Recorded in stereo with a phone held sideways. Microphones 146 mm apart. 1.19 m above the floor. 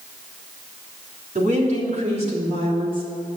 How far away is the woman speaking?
About 3.5 m.